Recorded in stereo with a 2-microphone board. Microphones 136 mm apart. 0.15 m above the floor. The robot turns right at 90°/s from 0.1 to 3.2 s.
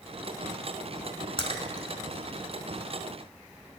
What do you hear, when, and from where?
1.4 s a splash: 40° left (ahead or behind), 0.6 m; by 1.9 s 25° left (ahead or behind), 0.6 m